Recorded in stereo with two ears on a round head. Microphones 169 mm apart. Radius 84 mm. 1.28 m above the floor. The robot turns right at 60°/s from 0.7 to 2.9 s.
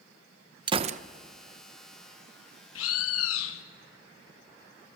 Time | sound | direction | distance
0.7 | a gunshot | 25° right (ahead or behind) | 0.6 m
2.8 | a bird | 75° left (ahead or behind) | 1.4 m